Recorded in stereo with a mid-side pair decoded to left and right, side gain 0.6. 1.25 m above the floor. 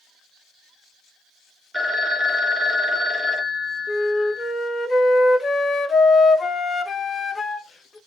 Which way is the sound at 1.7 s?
5° left.